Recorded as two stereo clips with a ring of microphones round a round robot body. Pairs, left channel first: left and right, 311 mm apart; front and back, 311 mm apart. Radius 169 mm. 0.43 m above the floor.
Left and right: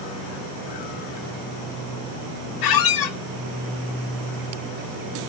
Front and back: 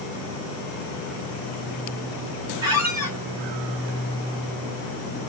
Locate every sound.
2.6 s a squeak: 100° left, 1.0 m